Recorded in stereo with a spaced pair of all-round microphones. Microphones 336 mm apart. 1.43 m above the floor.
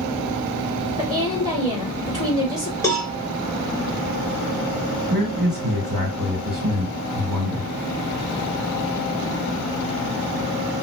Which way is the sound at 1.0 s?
15° left (ahead or behind).